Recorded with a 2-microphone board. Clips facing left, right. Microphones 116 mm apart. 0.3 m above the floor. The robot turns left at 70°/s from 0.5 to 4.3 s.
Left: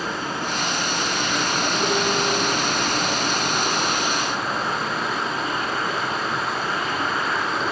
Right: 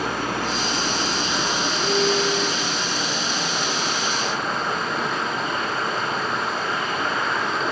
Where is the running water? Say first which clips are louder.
Right 2 dB; 90° right, 1.6 m; by 7.7 s 5° left, 1.6 m.